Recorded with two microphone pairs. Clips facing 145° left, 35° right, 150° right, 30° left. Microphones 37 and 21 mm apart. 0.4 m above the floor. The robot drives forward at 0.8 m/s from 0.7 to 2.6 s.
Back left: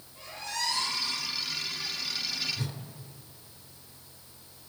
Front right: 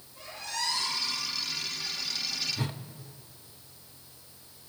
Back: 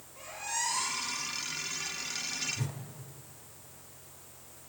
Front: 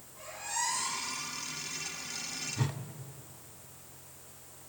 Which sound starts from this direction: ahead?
A whoosh, at 2.6 s.